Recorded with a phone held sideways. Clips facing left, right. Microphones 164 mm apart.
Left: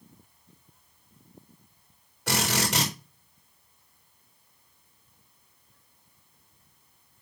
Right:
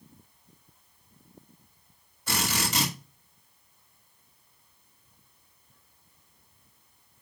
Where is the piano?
No piano in this recording.